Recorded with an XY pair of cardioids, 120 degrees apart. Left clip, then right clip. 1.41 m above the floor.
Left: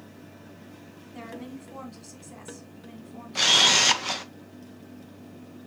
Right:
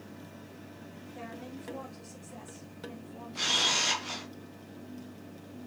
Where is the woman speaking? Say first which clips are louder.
Left 4 dB; 45° left, 3.5 m.